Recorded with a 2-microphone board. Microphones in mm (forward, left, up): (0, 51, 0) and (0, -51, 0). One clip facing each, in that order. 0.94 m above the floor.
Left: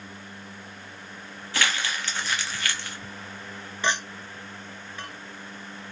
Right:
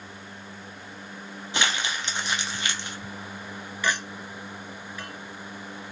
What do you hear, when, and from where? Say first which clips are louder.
1.5 s crumpling: even; 20° right (ahead or behind), 0.5 m
3.8 s a clink: left 1 dB; 25° left (ahead or behind), 0.7 m